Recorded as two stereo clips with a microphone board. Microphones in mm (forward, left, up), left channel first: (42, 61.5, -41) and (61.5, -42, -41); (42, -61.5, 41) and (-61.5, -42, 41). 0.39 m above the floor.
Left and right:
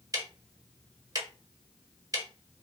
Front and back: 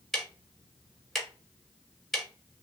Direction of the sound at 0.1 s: 95° right.